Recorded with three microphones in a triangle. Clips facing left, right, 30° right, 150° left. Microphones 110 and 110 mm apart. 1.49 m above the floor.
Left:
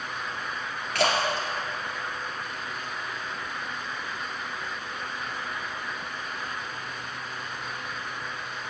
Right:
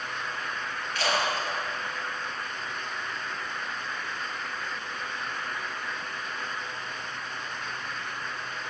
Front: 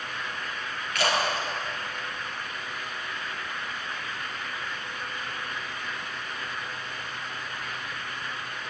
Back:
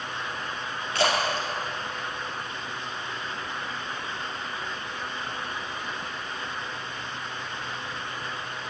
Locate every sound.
0.9 s a splash: 90° left, 2 m